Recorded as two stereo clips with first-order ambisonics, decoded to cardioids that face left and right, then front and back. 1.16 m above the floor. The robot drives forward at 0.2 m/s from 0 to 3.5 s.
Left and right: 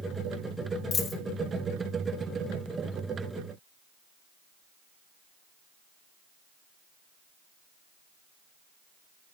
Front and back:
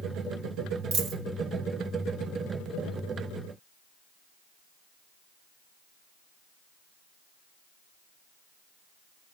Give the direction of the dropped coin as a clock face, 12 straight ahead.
7 o'clock.